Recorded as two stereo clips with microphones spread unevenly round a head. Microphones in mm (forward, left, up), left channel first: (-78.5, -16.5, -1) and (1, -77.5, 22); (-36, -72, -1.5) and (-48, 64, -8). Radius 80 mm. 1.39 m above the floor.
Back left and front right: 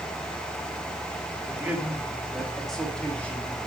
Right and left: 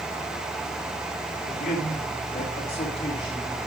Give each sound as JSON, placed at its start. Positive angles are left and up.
{"t": 1.4, "sound": "a man speaking", "azimuth_deg": -105, "distance_m": 2.5}